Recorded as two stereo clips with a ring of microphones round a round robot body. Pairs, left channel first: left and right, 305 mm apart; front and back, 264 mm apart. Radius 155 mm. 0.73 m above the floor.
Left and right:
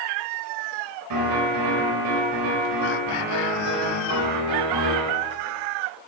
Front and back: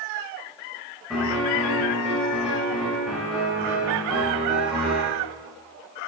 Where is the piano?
90° right, 3.5 m.